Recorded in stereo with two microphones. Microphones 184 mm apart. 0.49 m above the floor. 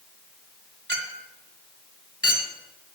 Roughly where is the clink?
Right.